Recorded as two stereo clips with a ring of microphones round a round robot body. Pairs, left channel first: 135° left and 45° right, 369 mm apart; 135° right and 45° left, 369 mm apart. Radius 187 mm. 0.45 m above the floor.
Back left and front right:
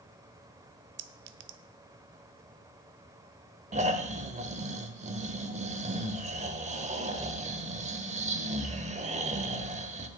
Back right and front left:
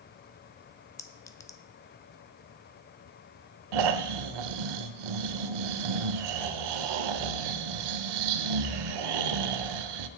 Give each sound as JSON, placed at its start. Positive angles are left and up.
{"t": 1.0, "sound": "a clink", "azimuth_deg": -60, "distance_m": 0.6}
{"t": 3.7, "sound": "snoring", "azimuth_deg": 25, "distance_m": 0.7}